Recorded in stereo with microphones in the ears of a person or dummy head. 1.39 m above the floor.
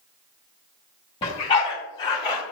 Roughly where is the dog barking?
Left.